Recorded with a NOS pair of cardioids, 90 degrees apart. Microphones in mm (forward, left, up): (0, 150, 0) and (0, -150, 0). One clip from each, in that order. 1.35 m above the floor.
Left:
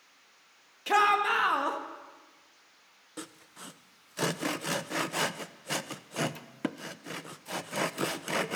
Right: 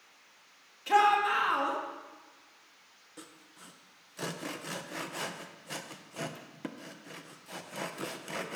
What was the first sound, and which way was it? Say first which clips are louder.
A shout: even; 35° left.